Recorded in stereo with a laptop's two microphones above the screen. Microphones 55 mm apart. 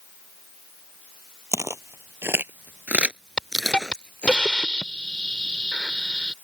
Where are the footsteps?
60° right (ahead or behind); by 4.4 s 25° left (ahead or behind).